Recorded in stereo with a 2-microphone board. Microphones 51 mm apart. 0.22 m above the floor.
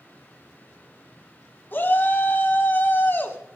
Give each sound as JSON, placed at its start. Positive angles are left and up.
{"t": 1.7, "sound": "a shout", "side_deg": 40, "distance_m": 1.5}